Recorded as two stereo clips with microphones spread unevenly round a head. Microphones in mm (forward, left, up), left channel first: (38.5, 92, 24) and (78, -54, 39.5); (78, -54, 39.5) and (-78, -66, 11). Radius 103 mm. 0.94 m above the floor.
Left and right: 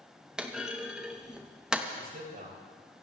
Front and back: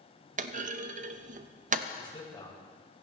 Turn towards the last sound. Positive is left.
turn(degrees=-60)